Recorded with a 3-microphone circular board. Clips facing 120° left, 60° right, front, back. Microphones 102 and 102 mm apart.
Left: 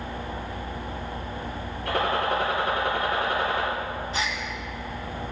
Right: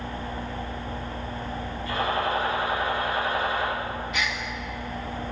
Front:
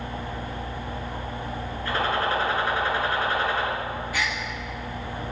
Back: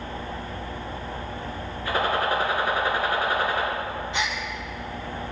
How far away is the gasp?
About 1.1 m.